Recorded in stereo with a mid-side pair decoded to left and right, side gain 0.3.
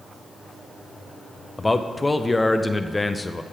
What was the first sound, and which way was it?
A man speaking, 25° left.